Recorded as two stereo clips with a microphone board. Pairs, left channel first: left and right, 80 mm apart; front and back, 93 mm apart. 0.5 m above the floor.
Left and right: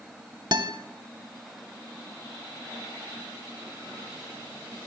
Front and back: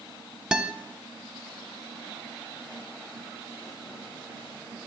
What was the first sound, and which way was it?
A guitar, 100° right.